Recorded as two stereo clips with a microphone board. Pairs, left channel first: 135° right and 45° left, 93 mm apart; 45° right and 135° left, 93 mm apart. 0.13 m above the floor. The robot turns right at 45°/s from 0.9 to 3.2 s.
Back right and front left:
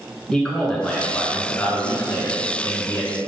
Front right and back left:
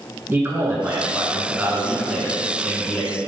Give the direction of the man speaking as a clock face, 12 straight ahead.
7 o'clock.